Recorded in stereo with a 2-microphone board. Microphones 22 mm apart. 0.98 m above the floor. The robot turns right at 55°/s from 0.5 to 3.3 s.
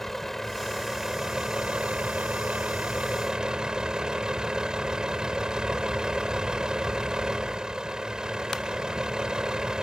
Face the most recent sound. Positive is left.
turn(degrees=-35)